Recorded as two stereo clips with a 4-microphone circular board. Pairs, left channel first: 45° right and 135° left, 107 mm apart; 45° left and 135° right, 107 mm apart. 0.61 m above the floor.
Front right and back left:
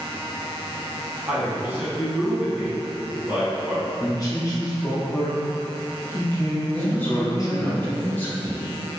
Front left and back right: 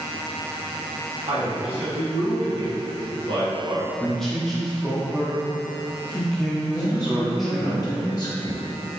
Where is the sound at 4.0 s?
40° right, 0.8 m.